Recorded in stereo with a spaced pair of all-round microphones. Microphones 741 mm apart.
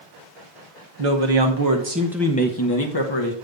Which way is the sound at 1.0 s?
50° right (ahead or behind).